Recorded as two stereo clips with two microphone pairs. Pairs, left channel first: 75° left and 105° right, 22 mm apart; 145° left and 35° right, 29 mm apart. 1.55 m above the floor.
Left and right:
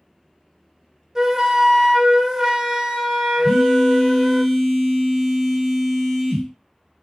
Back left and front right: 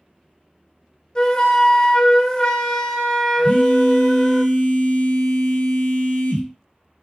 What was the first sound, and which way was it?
A flute, 160° right.